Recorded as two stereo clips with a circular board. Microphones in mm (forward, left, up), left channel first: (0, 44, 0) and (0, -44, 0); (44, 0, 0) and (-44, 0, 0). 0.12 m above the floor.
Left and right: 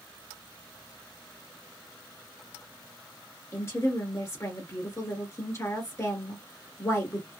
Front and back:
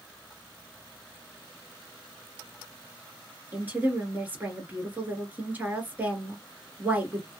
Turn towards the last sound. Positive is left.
turn(degrees=120)